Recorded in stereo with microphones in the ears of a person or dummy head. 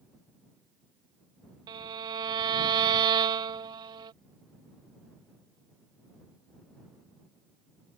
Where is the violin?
20° right (ahead or behind).